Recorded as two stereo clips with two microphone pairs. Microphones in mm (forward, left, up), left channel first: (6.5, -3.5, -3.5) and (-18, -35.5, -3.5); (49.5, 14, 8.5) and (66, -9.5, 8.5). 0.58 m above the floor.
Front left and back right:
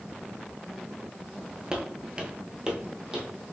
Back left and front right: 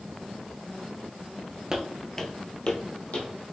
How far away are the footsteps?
About 0.6 m.